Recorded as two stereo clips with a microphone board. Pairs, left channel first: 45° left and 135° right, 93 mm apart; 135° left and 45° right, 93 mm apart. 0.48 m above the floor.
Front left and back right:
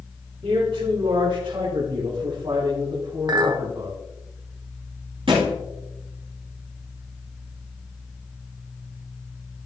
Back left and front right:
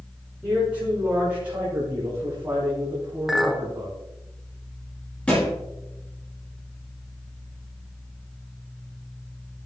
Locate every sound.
0.4 s a man speaking: 125° right, 5.5 m; by 4.0 s 100° right, 4.5 m
3.3 s a clink: 130° right, 1.0 m
5.3 s a thud: 145° right, 5 m